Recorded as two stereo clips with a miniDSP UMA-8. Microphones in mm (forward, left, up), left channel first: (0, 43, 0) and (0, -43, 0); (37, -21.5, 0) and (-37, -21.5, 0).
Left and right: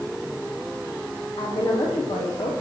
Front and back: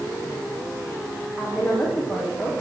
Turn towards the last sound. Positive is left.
turn(degrees=90)